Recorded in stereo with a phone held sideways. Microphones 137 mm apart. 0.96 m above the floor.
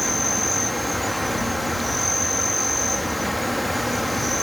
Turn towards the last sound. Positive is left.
turn(degrees=0)  # may be behind; listen again after turning